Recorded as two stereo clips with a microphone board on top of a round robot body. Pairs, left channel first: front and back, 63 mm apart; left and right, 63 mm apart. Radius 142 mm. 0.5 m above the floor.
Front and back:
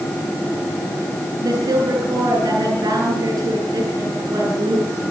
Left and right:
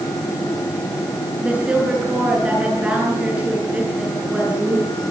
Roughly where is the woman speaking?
Behind.